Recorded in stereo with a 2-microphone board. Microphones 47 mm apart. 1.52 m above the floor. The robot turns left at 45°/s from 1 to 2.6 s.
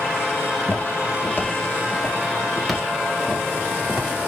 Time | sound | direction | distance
0.4 | footsteps | 50° left (ahead or behind) | 2.5 m